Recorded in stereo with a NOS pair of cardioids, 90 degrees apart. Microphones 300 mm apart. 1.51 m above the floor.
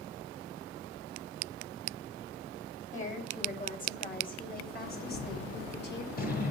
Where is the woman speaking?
25° left, 8.5 m; by 6.0 s 40° left, 7 m.